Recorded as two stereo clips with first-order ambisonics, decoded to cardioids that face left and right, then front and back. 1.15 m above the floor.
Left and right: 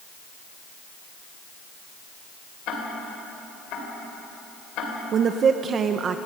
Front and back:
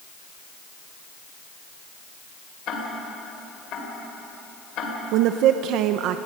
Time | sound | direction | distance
2.7 | ticking | 50° left | 3.5 m
5.1 | a woman speaking | 150° right | 0.7 m